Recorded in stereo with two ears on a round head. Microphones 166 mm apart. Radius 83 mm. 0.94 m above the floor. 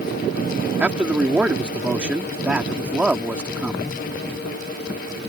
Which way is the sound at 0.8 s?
5° right (ahead or behind).